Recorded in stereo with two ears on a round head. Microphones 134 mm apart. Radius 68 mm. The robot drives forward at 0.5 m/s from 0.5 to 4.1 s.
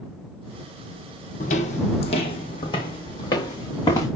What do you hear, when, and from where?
1.4 s footsteps: 60° left (ahead or behind), 2 m; by 4.1 s 25° left (ahead or behind), 5 m